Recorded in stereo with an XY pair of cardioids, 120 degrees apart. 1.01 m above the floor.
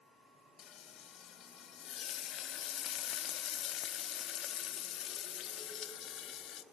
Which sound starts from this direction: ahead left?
Frying, at 0.6 s.